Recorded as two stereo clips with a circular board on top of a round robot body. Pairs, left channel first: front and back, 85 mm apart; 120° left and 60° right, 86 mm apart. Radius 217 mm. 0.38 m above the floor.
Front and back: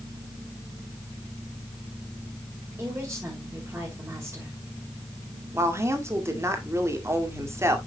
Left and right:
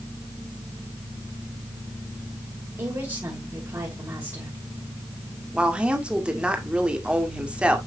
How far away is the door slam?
I don't hear a door slam.